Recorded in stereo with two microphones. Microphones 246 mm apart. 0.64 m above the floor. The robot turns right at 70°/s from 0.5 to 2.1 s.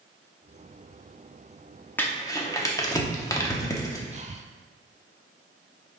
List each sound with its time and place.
2.0 s crumpling: 10° left (ahead or behind), 0.9 m; by 4.0 s 15° left (ahead or behind), 0.9 m
4.1 s breathing: 30° right (ahead or behind), 0.5 m